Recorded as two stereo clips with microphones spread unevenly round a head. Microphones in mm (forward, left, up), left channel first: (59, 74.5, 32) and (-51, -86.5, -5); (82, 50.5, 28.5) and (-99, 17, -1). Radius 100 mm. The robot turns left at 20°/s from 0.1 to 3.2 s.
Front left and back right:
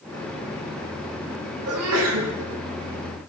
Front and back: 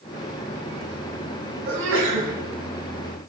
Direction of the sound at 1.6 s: 135° right.